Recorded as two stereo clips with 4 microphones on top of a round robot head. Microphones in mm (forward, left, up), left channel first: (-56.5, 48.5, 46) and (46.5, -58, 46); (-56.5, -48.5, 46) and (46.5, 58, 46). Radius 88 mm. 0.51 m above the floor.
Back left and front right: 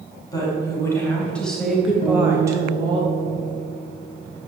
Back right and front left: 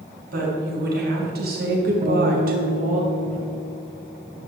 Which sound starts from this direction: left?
A guitar, at 2.0 s.